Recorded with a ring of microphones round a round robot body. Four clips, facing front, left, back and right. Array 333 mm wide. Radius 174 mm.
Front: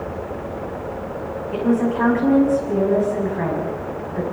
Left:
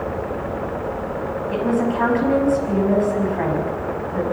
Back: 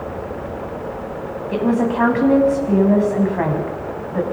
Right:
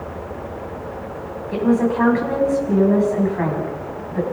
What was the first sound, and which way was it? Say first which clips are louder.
A woman speaking: right 3 dB, back 1 dB; 175° left.